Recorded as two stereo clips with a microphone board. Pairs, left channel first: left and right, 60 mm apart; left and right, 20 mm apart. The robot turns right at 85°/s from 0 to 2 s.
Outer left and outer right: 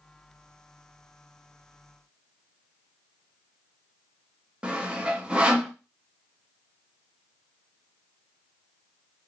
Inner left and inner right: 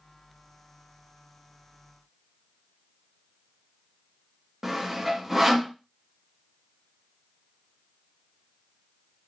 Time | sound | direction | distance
4.6 | sawing | 15° right (ahead or behind) | 0.6 m